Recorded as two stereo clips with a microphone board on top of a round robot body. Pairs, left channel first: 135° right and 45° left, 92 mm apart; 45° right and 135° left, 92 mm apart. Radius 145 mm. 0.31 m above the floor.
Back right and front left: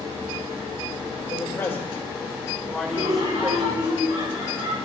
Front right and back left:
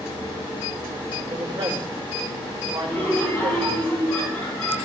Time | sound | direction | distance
1.3 | a man speaking | straight behind | 2 m
2.9 | laughter | 15° left | 7.5 m